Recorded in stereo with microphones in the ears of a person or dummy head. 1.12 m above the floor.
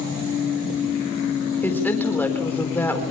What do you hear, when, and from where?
1.6 s a woman speaking: 10° left (ahead or behind), 4 m